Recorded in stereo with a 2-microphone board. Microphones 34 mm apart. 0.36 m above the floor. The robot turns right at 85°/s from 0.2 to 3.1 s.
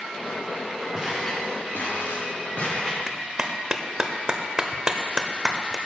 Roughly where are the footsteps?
Centre.